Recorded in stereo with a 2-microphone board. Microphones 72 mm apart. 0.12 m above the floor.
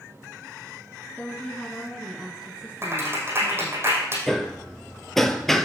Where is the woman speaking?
20° left (ahead or behind), 1.2 m; by 3.8 s 40° right (ahead or behind), 1.4 m.